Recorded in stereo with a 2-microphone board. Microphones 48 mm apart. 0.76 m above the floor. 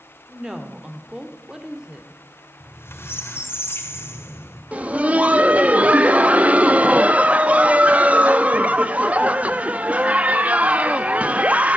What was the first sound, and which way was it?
A woman speaking, 15° right (ahead or behind).